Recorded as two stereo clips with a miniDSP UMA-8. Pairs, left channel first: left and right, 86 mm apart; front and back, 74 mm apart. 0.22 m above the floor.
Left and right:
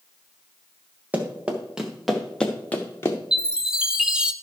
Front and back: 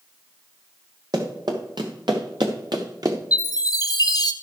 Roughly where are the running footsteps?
Behind.